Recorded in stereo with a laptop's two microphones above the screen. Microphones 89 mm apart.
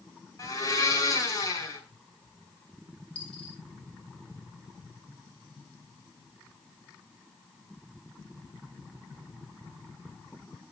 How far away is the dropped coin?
About 6 m.